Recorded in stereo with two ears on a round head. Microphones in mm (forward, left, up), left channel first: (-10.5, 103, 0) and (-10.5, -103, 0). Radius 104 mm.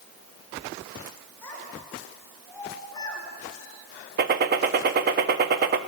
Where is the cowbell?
No cowbell in this recording.